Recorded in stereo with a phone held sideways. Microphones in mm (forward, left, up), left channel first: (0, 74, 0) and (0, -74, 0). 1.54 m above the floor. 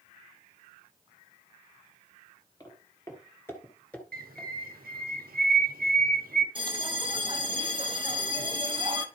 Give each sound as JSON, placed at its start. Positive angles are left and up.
{"t": 2.6, "sound": "footsteps", "side_deg": 25, "distance_m": 1.6}
{"t": 4.1, "sound": "a bird", "side_deg": -85, "distance_m": 0.9}
{"t": 6.5, "sound": "a bell", "side_deg": -35, "distance_m": 0.9}